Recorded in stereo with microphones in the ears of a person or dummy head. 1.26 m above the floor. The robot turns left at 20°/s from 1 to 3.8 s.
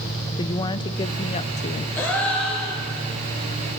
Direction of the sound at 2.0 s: 10° left (ahead or behind).